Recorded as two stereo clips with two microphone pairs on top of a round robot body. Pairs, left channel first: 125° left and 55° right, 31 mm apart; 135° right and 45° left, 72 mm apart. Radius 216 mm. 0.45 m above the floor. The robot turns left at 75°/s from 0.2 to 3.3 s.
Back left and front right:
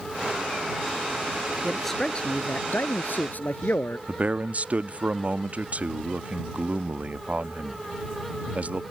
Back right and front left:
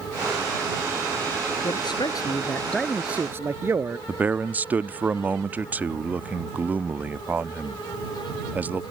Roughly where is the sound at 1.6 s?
Behind right.